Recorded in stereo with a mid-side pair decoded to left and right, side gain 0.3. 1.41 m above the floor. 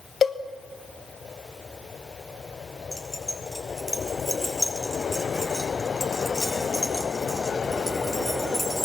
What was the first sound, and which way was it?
A cowbell, 65° left.